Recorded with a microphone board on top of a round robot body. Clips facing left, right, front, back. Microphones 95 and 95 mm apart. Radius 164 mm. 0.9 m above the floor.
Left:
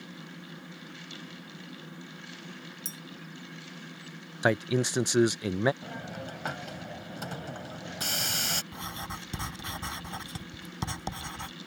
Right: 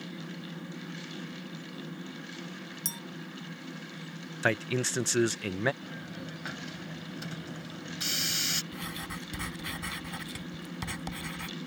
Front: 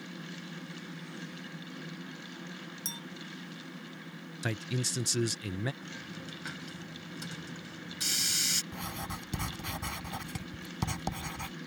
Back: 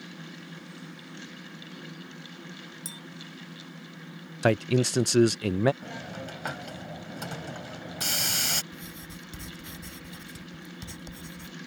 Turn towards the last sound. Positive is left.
turn(degrees=25)